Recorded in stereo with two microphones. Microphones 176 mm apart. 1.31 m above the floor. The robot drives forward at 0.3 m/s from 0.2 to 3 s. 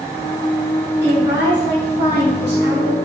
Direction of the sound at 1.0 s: 70° left (ahead or behind).